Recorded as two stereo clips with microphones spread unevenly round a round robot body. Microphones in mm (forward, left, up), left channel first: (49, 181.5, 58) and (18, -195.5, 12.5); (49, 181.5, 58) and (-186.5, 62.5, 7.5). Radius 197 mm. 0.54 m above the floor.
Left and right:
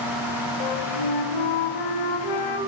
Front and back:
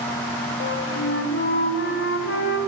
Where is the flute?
70° left, 2.5 m.